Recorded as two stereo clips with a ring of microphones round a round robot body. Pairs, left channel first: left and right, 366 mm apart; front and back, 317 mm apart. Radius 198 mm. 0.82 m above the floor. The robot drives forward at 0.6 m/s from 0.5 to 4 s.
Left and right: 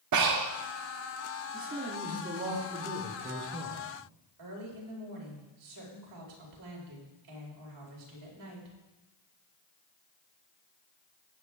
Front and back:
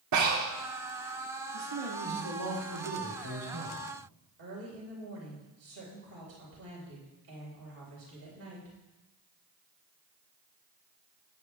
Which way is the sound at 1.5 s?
160° right.